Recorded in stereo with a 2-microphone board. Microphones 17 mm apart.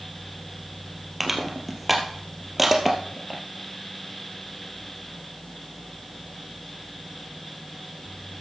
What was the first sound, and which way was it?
Crushing, 5° right (ahead or behind).